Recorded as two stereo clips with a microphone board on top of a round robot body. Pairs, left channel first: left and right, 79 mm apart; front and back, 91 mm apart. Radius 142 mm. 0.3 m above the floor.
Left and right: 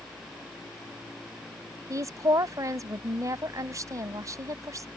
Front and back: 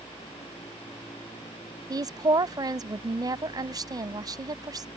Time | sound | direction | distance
1.9 | a woman speaking | 135° right | ?